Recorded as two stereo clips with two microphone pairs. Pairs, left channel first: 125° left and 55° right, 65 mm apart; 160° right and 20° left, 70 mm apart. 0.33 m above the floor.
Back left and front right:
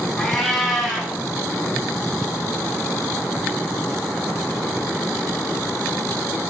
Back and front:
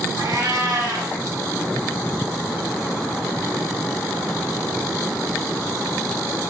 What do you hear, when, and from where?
0.2 s a cat meowing: 35° left, 3 m